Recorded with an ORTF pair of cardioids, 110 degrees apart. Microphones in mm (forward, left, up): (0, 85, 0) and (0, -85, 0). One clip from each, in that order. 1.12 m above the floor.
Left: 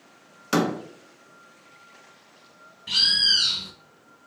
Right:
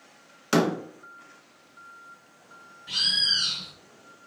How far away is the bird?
About 1.2 m.